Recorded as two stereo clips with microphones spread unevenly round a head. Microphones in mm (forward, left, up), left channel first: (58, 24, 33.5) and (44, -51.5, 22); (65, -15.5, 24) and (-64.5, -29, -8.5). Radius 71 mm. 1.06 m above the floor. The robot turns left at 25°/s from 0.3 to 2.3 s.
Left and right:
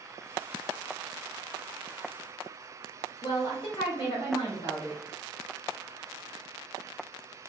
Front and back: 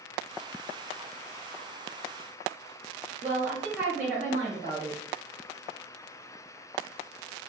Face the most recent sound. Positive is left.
turn(degrees=120)